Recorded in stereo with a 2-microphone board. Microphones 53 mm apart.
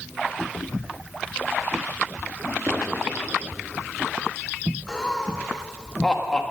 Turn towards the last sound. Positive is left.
turn(degrees=15)  # may be behind; listen again after turning